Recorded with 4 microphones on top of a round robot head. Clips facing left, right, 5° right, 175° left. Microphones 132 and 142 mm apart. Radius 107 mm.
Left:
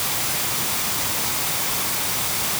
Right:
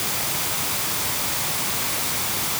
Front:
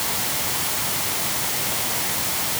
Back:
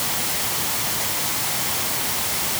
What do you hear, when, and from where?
Only background noise.